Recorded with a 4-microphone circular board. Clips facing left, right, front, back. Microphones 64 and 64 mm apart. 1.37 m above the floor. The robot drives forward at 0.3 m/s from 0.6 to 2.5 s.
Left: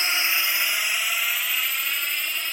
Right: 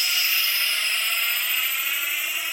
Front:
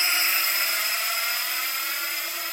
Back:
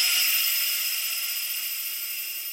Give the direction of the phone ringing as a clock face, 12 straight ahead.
I don't hear a phone ringing.